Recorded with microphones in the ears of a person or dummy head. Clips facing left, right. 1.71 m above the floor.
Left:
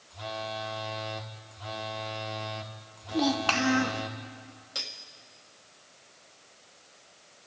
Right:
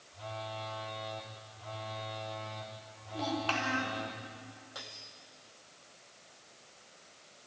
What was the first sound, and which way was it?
A phone buzzing, 80° left.